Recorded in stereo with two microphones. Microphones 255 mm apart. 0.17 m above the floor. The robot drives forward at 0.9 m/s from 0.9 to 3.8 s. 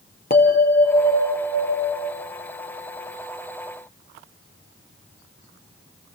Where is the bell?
35° left (ahead or behind), 4.5 m; by 2.2 s 45° left (ahead or behind), 3.5 m.